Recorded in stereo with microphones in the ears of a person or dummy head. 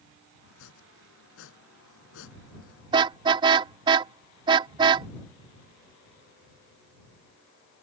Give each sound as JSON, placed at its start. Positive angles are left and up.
{"t": 0.4, "sound": "chopping", "side_deg": 75}
{"t": 2.9, "sound": "a car horn", "side_deg": -30}